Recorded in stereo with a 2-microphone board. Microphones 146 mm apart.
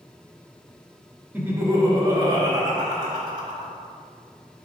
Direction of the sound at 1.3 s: 10° right (ahead or behind).